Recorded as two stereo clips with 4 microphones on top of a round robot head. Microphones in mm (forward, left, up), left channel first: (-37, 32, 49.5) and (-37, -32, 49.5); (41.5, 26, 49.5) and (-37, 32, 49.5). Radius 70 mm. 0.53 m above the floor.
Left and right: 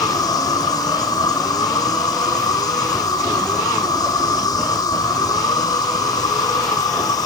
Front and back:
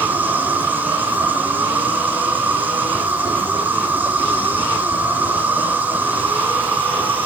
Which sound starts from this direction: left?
An insect, at 0.0 s.